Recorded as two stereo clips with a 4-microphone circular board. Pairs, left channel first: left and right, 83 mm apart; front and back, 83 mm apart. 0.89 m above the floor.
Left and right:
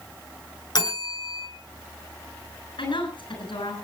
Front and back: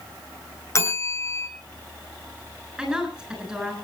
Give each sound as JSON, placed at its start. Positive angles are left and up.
{"t": 0.8, "sound": "a bell", "azimuth_deg": 55, "distance_m": 3.5}
{"t": 2.8, "sound": "a woman speaking", "azimuth_deg": 95, "distance_m": 7.5}